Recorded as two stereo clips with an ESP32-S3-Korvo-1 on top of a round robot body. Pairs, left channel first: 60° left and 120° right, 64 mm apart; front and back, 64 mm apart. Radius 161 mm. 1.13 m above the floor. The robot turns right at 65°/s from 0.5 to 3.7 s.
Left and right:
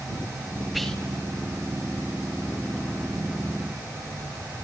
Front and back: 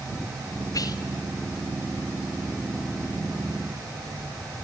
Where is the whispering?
30° right, 2.5 m; by 1.0 s 20° right, 2.5 m.